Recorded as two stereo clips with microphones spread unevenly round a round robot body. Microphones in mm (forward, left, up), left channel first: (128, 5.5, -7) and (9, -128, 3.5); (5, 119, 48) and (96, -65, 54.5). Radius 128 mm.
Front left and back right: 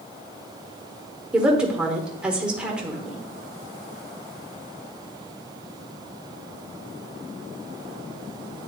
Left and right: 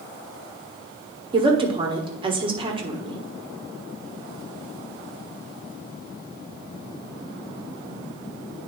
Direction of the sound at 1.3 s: 50° right.